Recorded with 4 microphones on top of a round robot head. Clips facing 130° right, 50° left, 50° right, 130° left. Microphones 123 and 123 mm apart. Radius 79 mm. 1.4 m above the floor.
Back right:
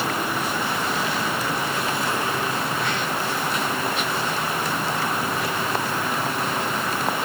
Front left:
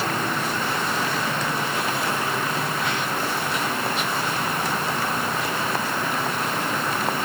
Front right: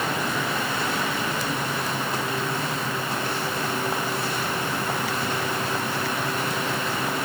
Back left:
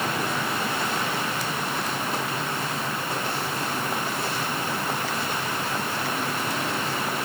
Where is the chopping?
I don't hear chopping.